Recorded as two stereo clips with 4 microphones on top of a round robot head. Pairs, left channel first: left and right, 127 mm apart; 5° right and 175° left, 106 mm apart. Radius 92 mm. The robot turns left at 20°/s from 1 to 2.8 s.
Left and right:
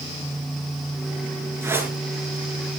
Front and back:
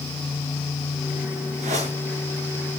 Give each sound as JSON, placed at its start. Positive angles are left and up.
{"t": 1.6, "sound": "a whoosh", "azimuth_deg": -160, "distance_m": 7.0}